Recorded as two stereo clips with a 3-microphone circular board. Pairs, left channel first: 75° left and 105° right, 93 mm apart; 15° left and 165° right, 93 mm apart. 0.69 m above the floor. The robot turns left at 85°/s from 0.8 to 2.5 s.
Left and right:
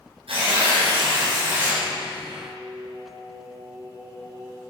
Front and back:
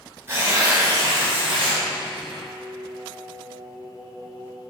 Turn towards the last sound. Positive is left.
turn(degrees=-175)